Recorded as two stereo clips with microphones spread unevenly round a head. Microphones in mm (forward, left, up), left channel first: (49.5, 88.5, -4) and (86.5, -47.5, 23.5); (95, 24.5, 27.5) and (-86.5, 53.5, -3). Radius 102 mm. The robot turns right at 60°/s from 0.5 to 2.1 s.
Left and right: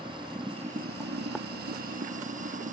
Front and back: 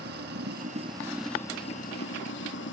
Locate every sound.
0.0 s running water: 145° right; by 2.7 s 45° right